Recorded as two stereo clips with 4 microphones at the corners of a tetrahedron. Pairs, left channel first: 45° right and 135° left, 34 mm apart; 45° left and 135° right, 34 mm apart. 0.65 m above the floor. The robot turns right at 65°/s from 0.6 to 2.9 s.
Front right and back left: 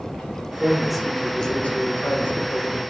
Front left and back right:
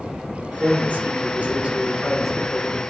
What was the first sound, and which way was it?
A man speaking, 160° right.